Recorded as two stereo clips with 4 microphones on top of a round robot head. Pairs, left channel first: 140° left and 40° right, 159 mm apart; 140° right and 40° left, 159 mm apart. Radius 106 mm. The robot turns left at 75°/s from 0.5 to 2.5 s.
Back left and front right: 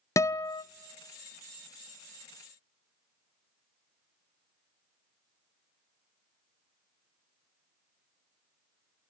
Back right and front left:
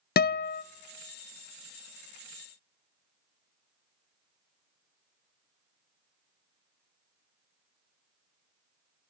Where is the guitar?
150° right, 0.6 m; by 0.6 s 160° right, 0.6 m.